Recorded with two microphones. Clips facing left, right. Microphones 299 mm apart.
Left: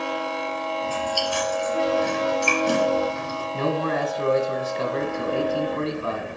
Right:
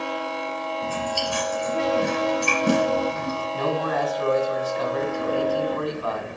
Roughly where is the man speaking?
Left.